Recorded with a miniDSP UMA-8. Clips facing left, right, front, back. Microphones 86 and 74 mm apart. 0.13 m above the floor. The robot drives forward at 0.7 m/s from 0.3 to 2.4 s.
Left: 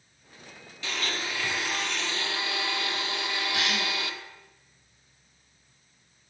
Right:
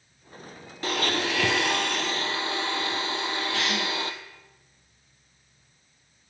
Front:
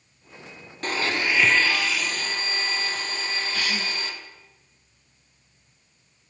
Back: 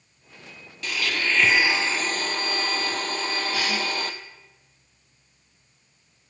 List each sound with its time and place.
0.8 s a blender: 50° right, 0.7 m; by 4.1 s 145° right, 0.8 m
3.5 s a cough: 165° left, 3 m